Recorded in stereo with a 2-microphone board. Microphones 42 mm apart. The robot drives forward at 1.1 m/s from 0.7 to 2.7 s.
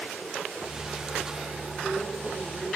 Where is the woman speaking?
15° left (ahead or behind), 6.5 m.